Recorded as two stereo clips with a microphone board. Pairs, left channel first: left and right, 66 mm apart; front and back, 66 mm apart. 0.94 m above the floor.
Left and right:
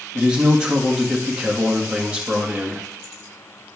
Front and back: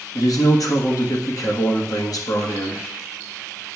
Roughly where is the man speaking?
Ahead.